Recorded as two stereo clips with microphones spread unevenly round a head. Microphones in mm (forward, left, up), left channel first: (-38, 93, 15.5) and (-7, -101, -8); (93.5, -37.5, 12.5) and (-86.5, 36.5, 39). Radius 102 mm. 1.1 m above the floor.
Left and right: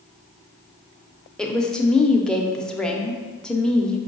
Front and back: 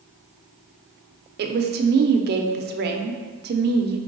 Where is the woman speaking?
170° right, 0.5 m.